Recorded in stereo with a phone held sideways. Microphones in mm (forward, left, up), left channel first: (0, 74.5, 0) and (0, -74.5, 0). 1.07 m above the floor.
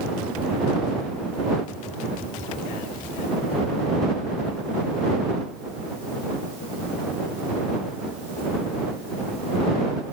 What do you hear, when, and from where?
Only background noise.